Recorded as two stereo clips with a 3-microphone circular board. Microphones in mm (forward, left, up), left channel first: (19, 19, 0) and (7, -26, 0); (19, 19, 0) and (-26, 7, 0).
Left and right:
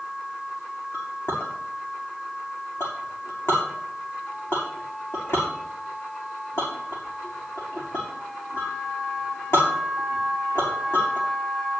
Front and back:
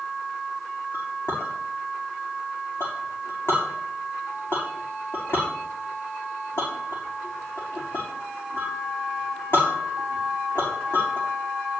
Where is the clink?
50° left, 6.5 m.